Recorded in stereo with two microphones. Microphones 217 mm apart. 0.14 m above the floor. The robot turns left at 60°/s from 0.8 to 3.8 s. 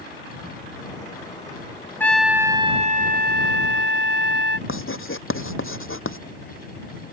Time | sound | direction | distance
2.0 | a trumpet | 10° left | ?
4.7 | writing | 80° left | ?